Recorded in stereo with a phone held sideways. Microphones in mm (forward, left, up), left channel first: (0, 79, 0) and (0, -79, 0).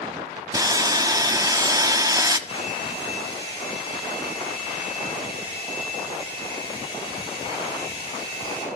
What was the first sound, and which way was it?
Sawing, 20° right (ahead or behind).